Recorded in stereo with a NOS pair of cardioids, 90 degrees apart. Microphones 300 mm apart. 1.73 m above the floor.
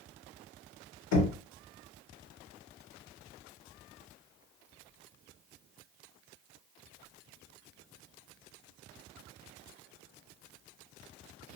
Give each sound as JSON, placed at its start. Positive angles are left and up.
{"t": 1.1, "sound": "knocking", "azimuth_deg": 70, "distance_m": 1.3}